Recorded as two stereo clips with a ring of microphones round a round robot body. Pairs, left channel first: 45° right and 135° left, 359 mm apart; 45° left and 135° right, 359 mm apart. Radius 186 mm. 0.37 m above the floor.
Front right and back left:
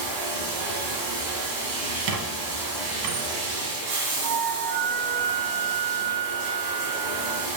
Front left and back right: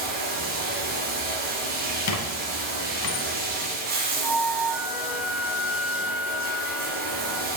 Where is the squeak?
90° left, 1.3 m.